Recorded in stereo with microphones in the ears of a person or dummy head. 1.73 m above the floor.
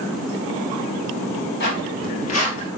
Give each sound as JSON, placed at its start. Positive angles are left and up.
{"t": 1.6, "sound": "footsteps", "side_deg": 55, "distance_m": 3.5}